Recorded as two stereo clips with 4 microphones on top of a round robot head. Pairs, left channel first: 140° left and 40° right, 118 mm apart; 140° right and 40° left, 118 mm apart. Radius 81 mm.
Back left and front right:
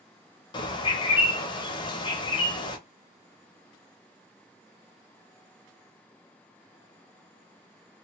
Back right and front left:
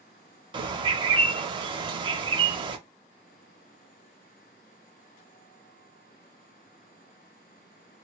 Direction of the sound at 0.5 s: 90° left.